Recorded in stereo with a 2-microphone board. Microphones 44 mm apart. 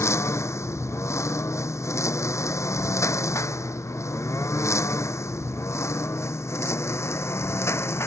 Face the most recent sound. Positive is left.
turn(degrees=65)  # may be behind; listen again after turning